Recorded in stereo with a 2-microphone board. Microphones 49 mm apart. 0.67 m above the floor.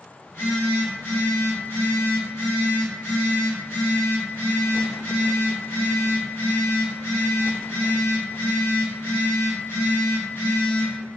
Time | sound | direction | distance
0.2 | a phone buzzing | 50° left (ahead or behind) | 1.2 m